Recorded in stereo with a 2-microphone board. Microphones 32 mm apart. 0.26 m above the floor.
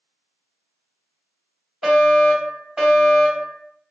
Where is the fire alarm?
25° right (ahead or behind), 2 m.